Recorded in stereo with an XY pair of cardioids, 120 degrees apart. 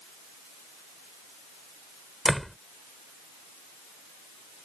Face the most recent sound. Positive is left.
turn(degrees=5)